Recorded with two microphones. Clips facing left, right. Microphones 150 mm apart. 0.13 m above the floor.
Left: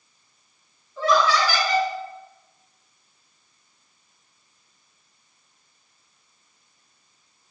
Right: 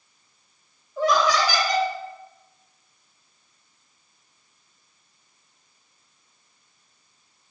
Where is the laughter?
15° right (ahead or behind), 1.7 m.